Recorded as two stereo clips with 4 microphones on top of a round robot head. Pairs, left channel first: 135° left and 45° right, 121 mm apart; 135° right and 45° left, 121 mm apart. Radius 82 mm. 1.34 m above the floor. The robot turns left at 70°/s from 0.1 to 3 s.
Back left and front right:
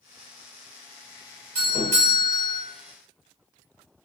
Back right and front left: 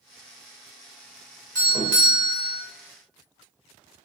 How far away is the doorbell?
About 1.1 m.